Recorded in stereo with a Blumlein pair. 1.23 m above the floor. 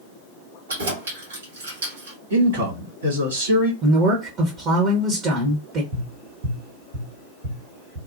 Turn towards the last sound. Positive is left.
turn(degrees=-65)